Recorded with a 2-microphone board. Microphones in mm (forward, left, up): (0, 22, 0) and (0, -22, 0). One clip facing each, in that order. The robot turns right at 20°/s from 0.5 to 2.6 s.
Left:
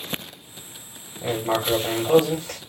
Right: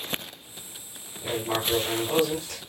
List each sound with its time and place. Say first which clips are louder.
1.2 s writing: left 4 dB; 75° left (ahead or behind), 5.5 m; by 2.6 s 80° left, 5.5 m